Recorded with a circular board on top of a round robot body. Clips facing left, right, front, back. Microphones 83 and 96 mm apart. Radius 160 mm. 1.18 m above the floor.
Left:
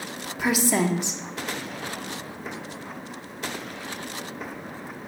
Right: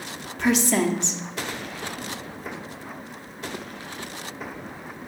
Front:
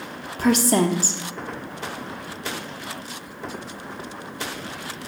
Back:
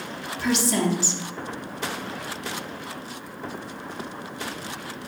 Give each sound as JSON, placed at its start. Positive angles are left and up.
{"t": 0.4, "sound": "a woman speaking", "azimuth_deg": 10, "distance_m": 0.7}